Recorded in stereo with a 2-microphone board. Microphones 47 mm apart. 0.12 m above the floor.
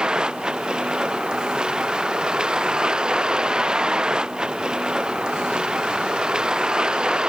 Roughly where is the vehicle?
Centre.